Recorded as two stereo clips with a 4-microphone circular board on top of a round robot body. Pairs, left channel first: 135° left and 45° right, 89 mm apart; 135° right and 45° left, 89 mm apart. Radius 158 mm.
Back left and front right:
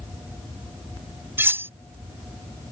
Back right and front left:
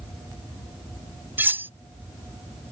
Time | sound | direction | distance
1.4 | cutlery clinking | straight ahead | ?